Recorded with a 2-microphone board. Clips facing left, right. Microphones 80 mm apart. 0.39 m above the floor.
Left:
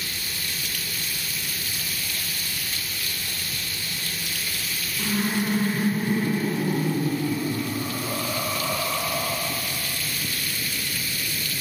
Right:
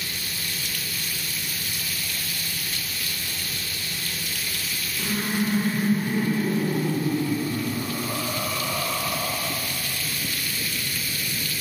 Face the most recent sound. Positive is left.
turn(degrees=5)  # may be behind; listen again after turning